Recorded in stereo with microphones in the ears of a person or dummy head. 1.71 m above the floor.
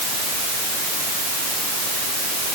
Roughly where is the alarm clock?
No alarm clock in this recording.